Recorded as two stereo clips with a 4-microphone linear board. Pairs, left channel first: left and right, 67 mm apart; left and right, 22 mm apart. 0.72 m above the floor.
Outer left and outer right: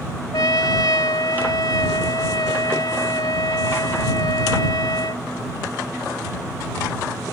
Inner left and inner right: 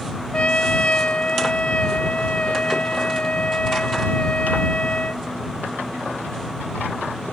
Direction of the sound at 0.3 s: 75° left (ahead or behind).